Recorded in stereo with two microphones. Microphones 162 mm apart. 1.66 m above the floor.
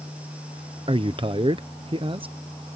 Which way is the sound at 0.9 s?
30° right (ahead or behind).